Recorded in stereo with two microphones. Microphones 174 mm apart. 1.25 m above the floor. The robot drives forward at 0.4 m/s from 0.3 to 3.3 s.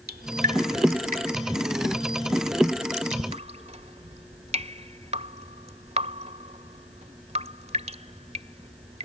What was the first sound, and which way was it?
Dripping, 60° right (ahead or behind).